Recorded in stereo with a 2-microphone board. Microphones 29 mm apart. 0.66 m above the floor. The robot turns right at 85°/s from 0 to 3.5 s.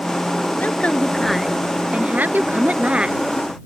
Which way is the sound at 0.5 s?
105° left.